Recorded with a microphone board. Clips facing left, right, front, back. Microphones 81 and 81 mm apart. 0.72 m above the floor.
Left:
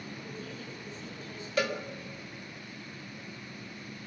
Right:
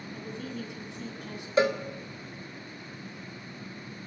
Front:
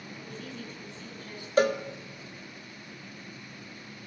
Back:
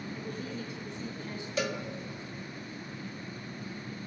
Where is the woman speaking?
100° right, 7 m; by 1.5 s 110° right, 7 m.